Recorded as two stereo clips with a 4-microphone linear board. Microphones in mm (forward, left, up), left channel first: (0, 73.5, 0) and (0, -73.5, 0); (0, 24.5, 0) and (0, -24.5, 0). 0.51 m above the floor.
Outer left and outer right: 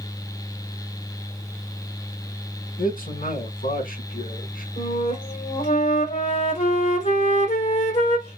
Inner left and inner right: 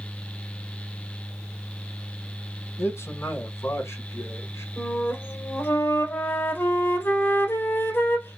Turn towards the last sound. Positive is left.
turn(degrees=60)  # may be behind; listen again after turning